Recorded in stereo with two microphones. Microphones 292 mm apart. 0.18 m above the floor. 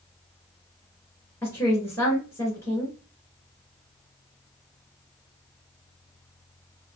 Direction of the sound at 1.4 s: 10° left (ahead or behind).